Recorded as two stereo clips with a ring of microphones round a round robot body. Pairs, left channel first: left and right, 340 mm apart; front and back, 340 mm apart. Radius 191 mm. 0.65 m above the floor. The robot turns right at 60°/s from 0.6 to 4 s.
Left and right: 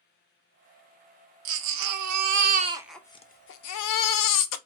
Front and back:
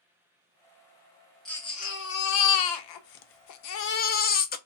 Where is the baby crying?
90° right, 0.5 m; by 4.6 s 65° left, 0.5 m.